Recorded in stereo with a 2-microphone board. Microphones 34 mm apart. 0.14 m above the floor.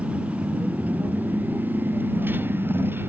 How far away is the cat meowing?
No cat meowing in this recording.